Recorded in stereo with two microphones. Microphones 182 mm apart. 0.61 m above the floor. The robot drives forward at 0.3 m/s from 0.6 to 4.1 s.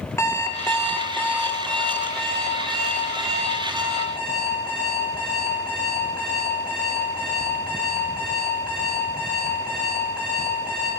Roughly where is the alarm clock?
Centre.